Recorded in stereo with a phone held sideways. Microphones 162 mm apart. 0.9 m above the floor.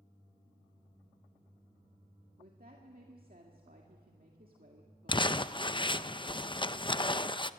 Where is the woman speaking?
65° right (ahead or behind), 2 m.